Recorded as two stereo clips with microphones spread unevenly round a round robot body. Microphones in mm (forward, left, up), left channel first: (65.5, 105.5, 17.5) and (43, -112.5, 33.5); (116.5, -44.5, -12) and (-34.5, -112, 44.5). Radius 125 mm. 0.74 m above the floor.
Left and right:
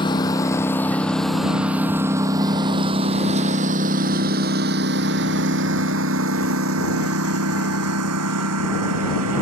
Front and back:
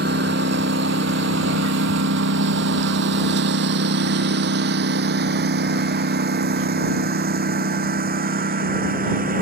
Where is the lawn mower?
160° left; by 9.4 s 125° right.